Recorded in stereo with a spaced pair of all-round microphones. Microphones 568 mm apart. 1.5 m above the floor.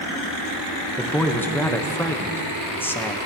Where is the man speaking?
5° left (ahead or behind), 0.8 m.